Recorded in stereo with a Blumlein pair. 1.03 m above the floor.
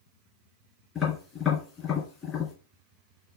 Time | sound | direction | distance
0.9 | tapping | 25° left | 2.5 m